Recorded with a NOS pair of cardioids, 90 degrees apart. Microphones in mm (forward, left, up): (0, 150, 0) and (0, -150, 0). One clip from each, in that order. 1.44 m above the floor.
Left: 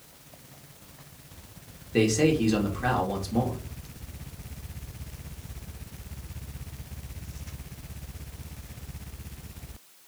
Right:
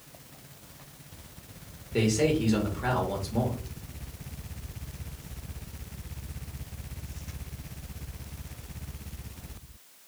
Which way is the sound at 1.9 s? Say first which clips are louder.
Left 3 dB; 25° left.